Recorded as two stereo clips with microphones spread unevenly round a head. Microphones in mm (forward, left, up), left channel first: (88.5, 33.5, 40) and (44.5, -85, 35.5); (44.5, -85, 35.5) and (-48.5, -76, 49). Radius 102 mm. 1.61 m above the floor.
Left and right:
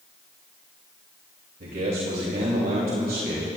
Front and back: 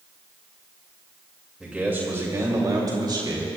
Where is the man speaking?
105° right, 2.5 m; by 3.6 s 155° right, 4 m.